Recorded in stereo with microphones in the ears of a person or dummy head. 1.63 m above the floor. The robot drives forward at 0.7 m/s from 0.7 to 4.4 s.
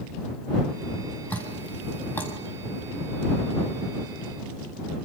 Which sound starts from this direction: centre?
Dripping, at 1.3 s.